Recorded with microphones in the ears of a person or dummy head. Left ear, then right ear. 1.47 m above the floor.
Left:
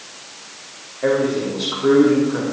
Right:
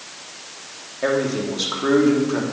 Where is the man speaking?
80° right, 3 m.